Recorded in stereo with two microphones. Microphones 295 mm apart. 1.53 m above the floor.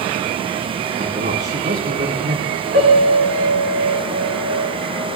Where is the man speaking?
40° right (ahead or behind), 4 m.